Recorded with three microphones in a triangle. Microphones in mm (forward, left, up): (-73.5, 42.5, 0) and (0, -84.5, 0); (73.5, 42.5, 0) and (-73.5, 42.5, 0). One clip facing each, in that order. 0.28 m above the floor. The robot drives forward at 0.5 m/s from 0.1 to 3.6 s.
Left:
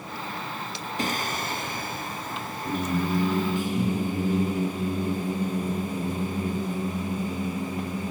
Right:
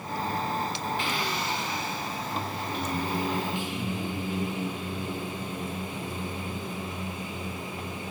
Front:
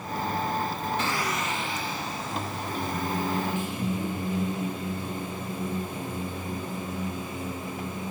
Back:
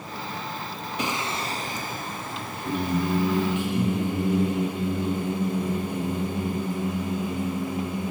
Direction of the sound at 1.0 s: 110° left.